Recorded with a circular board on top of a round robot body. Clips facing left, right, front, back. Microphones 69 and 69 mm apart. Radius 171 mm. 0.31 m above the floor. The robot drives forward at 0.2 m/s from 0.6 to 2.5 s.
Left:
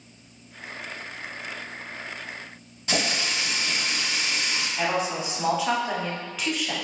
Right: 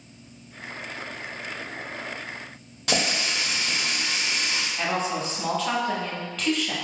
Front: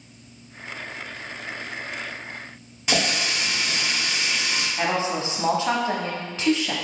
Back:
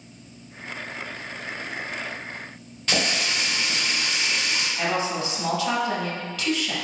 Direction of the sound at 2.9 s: 75° right.